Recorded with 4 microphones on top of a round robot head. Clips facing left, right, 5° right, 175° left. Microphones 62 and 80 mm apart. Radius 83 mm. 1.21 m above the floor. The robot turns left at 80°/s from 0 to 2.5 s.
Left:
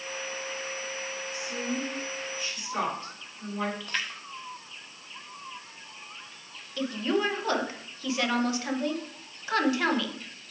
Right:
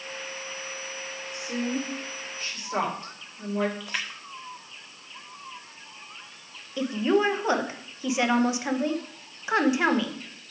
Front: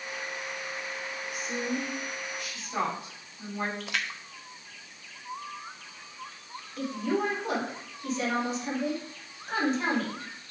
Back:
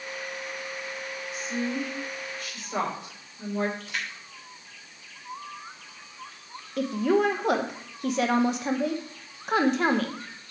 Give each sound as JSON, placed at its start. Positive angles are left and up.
{"t": 1.3, "sound": "a woman speaking", "azimuth_deg": -45, "distance_m": 3.5}
{"t": 3.8, "sound": "a splash", "azimuth_deg": -5, "distance_m": 0.6}
{"t": 6.8, "sound": "a woman speaking", "azimuth_deg": -160, "distance_m": 0.9}